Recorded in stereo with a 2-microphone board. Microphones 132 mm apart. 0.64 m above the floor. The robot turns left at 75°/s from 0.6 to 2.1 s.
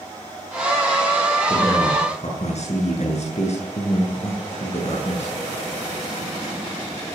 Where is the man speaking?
165° left, 8.5 m; by 5.3 s 120° left, 8.5 m.